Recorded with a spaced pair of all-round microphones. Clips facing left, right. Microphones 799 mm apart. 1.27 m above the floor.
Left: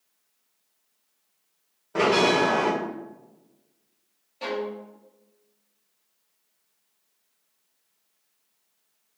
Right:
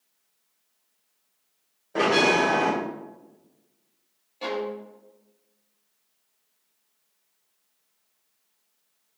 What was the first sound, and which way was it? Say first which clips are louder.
A bell: left 1 dB; 40° left (ahead or behind).